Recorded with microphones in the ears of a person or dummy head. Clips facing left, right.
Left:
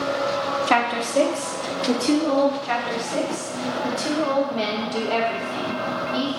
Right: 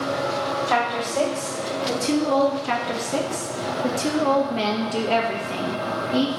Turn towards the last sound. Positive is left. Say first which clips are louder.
# even
turn(degrees=-60)  # may be behind; listen again after turning